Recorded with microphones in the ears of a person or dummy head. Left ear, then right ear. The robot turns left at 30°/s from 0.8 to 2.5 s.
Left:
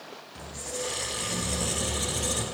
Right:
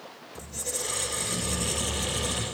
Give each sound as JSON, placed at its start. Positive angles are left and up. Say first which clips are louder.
{"t": 0.3, "sound": "a squeak", "louder": "right 1 dB", "azimuth_deg": -145, "distance_m": 2.5}